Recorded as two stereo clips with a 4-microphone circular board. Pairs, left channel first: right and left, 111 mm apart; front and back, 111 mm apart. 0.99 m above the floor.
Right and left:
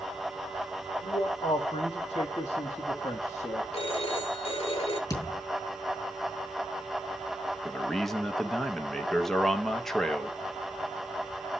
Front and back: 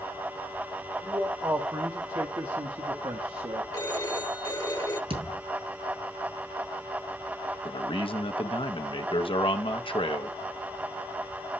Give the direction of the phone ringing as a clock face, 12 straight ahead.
2 o'clock.